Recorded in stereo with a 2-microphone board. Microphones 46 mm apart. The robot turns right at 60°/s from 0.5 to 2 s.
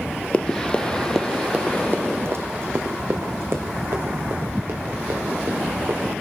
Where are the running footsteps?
25° left (ahead or behind), 1.0 m; by 6.1 s 75° right (ahead or behind), 6 m.